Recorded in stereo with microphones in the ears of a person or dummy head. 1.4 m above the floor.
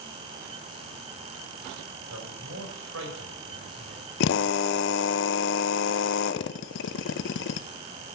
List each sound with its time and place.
2.1 s a man speaking: 80° right, 4.5 m
4.2 s a drill: 70° left (ahead or behind), 0.6 m